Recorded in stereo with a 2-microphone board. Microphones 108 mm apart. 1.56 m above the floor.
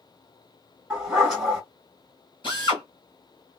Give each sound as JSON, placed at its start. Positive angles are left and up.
{"t": 0.9, "sound": "a dog barking", "side_deg": -5, "distance_m": 2.0}
{"t": 2.4, "sound": "a drill", "side_deg": 50, "distance_m": 1.7}